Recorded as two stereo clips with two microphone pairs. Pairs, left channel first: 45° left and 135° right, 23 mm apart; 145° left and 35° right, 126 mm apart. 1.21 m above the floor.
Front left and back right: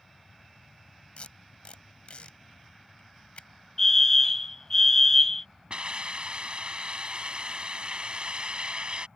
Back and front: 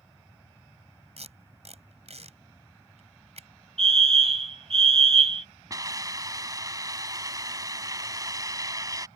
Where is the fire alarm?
20° right.